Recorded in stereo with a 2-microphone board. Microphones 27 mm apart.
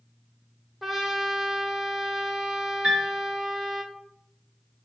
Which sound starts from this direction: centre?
A trumpet, at 0.8 s.